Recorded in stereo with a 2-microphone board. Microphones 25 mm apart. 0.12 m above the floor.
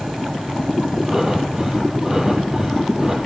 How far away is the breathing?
About 4 m.